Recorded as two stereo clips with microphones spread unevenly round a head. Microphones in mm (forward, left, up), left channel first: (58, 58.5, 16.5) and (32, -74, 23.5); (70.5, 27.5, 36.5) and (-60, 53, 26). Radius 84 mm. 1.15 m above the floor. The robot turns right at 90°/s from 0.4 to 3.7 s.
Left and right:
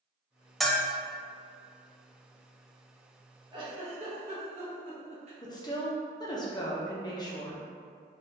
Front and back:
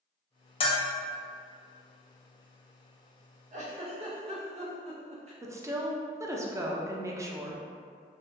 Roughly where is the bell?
Ahead.